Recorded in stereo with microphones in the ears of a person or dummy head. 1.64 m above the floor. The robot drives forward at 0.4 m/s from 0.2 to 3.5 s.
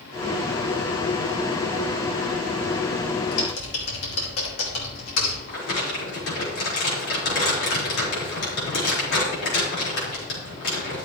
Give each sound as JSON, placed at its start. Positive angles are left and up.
{"t": 3.3, "sound": "typing on a keyboard", "side_deg": 80, "distance_m": 2.5}
{"t": 5.5, "sound": "crumpling", "side_deg": 70, "distance_m": 5.0}